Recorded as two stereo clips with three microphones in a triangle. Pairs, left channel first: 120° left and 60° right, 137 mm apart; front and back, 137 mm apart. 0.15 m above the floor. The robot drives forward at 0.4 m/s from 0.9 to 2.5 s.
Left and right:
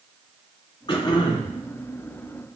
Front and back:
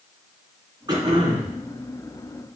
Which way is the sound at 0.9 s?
145° left.